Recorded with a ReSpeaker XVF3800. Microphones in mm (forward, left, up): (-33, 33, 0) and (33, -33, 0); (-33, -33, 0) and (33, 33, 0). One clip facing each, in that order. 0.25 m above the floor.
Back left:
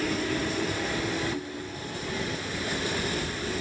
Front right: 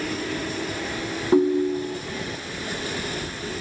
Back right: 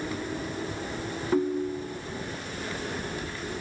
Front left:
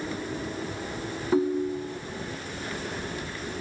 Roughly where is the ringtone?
Ahead right.